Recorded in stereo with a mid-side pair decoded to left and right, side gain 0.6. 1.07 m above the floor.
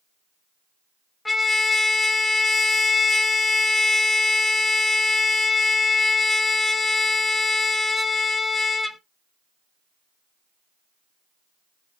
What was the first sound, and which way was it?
A trumpet, 15° left.